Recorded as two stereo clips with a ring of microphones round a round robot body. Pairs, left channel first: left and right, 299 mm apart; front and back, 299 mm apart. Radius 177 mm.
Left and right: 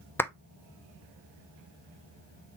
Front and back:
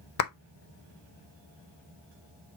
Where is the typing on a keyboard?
No typing on a keyboard in this recording.